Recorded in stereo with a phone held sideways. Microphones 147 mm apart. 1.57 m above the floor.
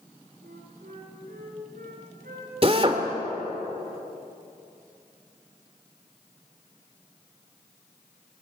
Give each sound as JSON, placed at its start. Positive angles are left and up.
{"t": 0.4, "sound": "a flute", "side_deg": -70, "distance_m": 5.5}
{"t": 2.6, "sound": "a drill", "side_deg": -40, "distance_m": 2.0}